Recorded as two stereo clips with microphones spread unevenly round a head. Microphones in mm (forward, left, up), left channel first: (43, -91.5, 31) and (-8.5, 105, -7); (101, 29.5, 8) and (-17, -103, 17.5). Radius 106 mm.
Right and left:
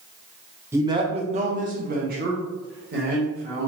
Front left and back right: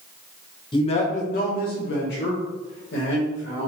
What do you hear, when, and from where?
0.7 s a man speaking: 65° left, 0.5 m; by 3.7 s 70° left, 1.8 m